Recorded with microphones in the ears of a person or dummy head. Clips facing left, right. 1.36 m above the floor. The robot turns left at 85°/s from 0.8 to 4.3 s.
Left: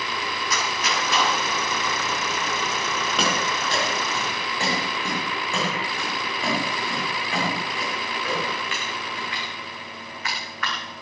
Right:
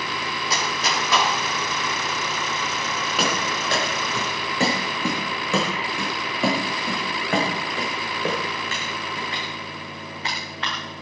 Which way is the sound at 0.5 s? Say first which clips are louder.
Right 1 dB; 35° right (ahead or behind).